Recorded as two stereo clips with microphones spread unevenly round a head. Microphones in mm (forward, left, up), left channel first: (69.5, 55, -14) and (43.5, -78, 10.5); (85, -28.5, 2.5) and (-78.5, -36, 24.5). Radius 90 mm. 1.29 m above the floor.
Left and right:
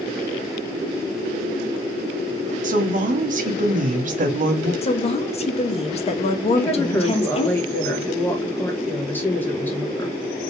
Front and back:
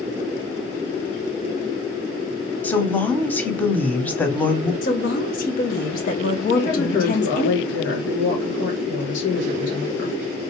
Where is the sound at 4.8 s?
40° left, 0.8 m.